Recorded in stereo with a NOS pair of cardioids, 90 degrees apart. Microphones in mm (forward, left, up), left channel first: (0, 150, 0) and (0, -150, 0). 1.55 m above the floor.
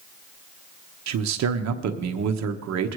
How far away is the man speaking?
About 1.1 m.